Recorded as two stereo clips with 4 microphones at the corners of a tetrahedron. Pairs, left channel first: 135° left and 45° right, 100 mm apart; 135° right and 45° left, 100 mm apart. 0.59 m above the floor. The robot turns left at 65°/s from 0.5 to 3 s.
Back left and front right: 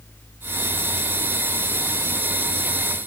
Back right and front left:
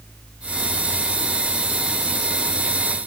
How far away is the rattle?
I don't hear a rattle.